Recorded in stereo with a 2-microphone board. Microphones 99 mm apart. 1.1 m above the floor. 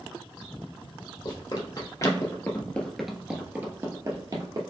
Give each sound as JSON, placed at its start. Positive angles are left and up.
{"t": 1.2, "sound": "running footsteps", "side_deg": 50, "distance_m": 1.8}